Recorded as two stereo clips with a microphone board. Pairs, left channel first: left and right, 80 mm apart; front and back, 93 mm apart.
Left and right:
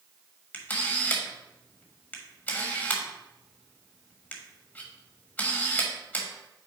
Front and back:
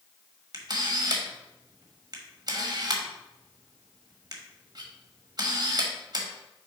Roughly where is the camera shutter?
Behind left.